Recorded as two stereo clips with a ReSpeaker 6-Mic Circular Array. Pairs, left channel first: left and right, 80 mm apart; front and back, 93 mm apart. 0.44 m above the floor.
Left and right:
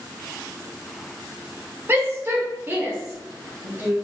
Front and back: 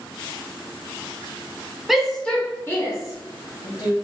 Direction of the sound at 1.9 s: 100° right.